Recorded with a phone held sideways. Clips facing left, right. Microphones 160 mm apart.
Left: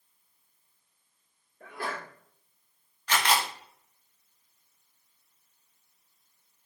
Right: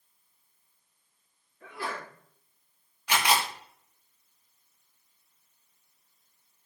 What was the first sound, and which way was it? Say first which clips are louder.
A sneeze: even; 50° left (ahead or behind).